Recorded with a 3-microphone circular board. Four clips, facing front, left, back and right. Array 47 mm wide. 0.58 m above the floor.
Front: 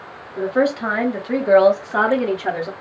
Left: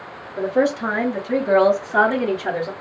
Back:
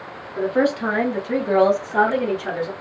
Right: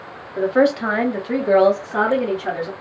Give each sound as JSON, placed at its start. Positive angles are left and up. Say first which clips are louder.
{"t": 0.4, "sound": "a woman speaking", "louder": "right 3 dB, front 1 dB", "azimuth_deg": -100, "distance_m": 1.0}